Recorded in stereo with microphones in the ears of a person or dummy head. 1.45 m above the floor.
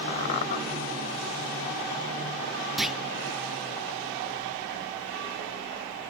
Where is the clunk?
Centre (ahead or behind), 0.7 m.